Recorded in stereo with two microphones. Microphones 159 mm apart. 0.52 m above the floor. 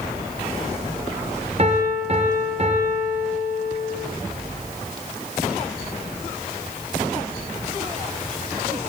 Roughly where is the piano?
Right.